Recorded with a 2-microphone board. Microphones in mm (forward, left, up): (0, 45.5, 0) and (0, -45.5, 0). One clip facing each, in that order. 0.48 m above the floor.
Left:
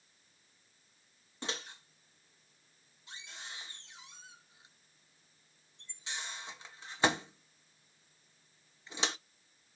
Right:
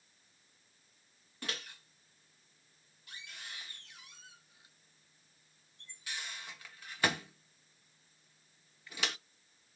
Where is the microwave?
25° left (ahead or behind), 0.6 m.